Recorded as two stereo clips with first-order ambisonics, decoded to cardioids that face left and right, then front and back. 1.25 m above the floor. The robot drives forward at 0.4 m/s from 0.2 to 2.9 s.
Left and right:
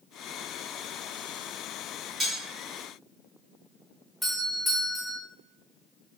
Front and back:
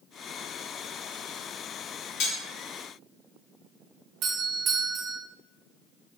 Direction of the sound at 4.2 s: 175° left.